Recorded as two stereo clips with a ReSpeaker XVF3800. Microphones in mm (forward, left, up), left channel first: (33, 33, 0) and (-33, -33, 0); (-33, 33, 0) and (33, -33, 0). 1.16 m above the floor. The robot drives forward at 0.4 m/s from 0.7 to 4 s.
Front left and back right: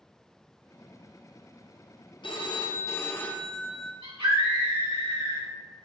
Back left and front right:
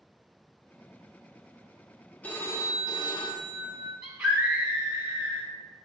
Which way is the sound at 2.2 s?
60° left.